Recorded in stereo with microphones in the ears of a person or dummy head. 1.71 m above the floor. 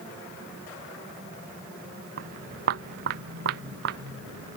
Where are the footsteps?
60° right (ahead or behind); by 4.6 s 70° right (ahead or behind).